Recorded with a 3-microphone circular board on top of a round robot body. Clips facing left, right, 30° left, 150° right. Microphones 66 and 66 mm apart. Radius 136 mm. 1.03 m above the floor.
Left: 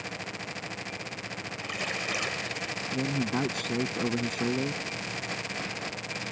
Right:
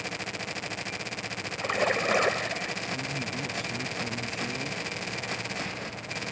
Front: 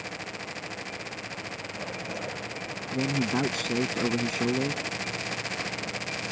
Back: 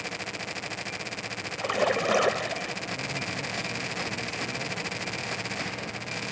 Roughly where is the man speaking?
Ahead left.